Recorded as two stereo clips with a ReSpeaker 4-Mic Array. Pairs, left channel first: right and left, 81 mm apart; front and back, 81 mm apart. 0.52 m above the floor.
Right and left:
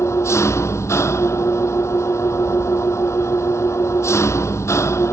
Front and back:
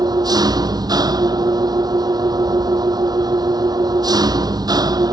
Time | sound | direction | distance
0.0 | an engine running | 145° right | ?